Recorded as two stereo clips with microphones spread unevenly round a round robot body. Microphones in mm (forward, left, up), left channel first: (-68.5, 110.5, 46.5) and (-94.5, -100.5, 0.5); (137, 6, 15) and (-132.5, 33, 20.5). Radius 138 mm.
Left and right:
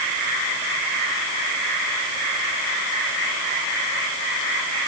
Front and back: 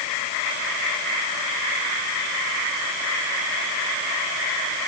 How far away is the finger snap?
I don't hear a finger snap.